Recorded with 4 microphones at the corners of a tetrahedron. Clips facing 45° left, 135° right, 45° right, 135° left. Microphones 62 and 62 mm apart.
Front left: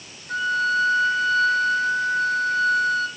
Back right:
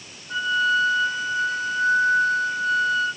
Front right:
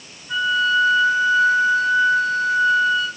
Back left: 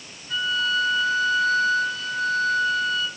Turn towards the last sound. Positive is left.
turn(degrees=30)